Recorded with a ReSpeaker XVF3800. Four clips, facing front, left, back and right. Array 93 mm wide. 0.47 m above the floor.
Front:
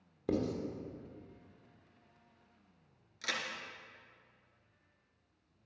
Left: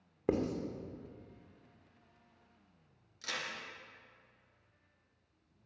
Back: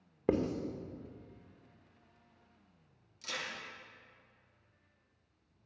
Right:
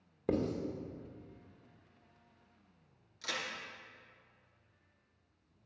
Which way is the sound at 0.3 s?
155° left.